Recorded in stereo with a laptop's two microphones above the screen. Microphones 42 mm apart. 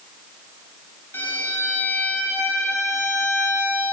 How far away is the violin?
About 1.4 m.